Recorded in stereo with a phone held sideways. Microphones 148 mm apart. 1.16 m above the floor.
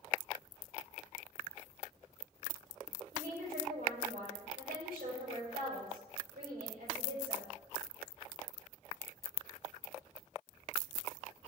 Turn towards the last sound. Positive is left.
turn(degrees=-80)